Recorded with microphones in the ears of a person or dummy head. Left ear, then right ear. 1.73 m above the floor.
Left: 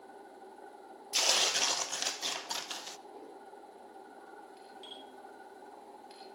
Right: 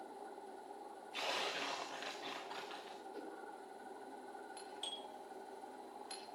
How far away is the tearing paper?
About 1.1 m.